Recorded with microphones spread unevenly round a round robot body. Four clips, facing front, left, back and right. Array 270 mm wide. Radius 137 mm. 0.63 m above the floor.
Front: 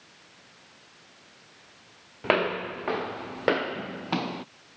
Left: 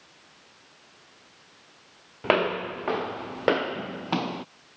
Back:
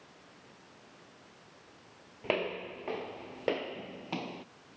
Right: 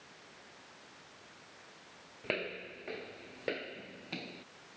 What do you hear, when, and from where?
2.2 s footsteps: 50° left